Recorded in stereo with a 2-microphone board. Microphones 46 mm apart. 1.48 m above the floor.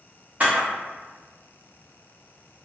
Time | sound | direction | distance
0.4 | a camera shutter | 35° right (ahead or behind) | 0.9 m